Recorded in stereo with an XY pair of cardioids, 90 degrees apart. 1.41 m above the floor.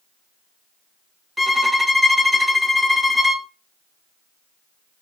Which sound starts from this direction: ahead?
A violin, at 1.4 s.